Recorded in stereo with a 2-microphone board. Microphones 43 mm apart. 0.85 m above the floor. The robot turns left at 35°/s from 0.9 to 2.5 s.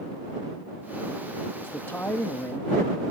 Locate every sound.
1.6 s a man speaking: 110° left; by 3.0 s 75° left